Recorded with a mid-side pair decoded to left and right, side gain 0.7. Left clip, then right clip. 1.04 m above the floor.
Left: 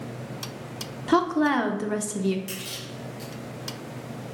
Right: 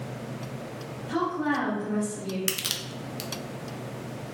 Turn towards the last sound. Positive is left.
turn(degrees=-60)